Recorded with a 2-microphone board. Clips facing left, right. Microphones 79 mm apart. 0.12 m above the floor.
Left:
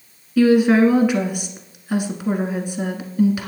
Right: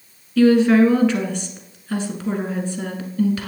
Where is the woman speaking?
10° left (ahead or behind), 1.2 m.